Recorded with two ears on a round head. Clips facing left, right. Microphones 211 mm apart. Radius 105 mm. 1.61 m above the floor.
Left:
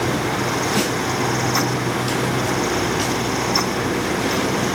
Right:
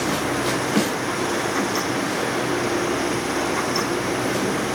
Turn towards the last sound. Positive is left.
No sound to turn to.